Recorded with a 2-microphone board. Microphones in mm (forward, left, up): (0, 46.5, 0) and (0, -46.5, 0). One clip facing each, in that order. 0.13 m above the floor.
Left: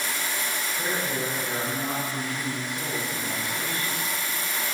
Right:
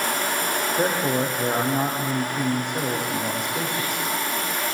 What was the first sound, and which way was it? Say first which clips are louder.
A man speaking: right 7 dB; 65° right (ahead or behind).